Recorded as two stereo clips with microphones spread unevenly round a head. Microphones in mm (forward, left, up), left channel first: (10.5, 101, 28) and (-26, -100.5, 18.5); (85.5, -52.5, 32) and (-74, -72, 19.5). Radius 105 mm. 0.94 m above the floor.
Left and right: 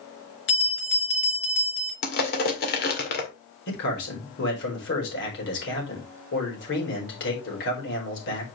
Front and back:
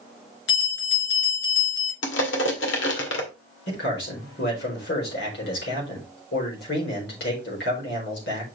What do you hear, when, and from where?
0.5 s a bell: 45° left, 3.5 m
2.0 s crushing: 35° left, 1.9 m
3.7 s a man speaking: 45° left, 4.5 m